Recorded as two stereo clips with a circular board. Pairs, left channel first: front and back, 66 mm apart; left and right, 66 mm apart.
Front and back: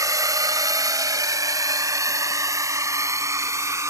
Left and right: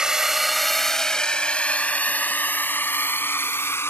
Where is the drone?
170° right; by 3.9 s 140° left.